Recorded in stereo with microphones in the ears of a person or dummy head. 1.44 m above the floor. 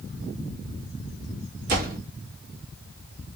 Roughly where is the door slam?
Right.